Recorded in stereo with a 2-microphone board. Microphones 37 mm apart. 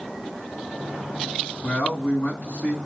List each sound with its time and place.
1.6 s a man speaking: 45° left (ahead or behind), 2.5 m